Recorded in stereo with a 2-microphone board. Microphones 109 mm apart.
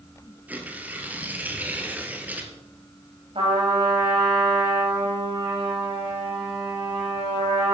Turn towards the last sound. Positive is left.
turn(degrees=-65)  # may be behind; listen again after turning